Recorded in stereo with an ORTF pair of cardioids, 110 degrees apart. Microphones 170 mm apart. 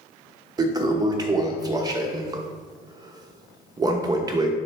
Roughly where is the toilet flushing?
Ahead right.